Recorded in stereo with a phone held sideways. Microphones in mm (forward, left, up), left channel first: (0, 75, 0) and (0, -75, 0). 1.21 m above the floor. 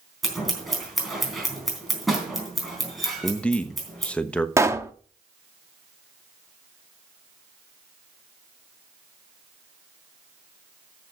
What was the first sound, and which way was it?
Scissors, centre (ahead or behind).